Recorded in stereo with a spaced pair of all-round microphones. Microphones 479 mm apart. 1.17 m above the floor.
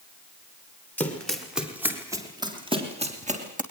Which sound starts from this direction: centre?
Running footsteps, at 1.0 s.